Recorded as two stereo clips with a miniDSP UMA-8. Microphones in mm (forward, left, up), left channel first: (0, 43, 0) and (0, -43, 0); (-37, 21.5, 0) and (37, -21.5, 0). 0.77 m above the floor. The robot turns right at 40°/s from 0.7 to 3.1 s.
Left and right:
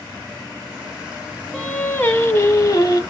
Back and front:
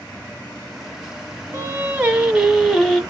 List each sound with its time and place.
1.5 s singing: 15° left, 0.9 m; by 3.0 s 75° left, 0.9 m